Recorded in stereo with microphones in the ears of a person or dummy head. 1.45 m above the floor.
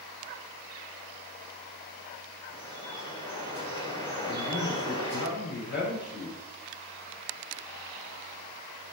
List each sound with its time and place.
2.5 s dripping: 25° left (ahead or behind), 3.5 m
4.3 s a man speaking: 60° left (ahead or behind), 6 m